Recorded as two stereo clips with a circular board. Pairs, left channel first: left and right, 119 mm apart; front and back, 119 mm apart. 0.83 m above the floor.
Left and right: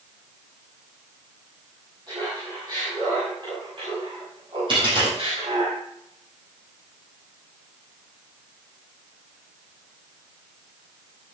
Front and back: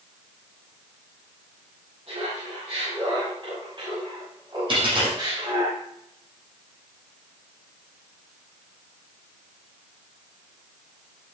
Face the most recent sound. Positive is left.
turn(degrees=-135)